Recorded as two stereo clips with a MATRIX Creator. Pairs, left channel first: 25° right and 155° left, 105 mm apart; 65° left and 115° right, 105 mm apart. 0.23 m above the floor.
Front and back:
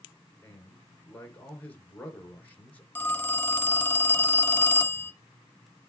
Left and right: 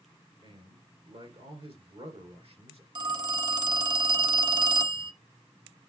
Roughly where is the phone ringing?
Right.